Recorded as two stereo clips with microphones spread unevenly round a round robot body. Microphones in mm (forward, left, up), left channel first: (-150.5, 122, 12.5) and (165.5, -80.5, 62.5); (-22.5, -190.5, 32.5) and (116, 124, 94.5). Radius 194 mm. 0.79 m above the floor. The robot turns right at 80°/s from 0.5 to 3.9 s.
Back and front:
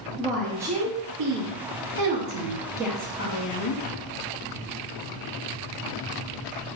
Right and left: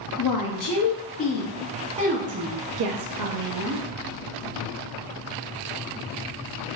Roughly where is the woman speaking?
Behind right.